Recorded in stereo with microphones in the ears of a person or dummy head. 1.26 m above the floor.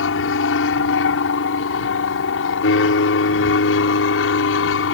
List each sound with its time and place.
0.0 s an aircraft: 70° left (ahead or behind)